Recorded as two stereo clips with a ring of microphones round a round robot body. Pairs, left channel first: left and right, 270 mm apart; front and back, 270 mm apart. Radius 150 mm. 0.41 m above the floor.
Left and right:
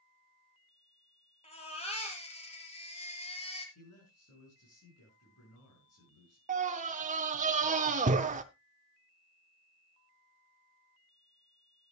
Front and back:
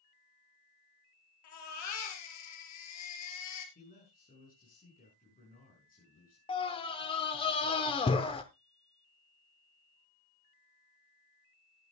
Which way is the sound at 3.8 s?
60° left.